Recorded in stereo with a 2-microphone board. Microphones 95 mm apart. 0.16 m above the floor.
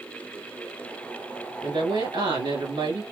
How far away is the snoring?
I don't hear snoring.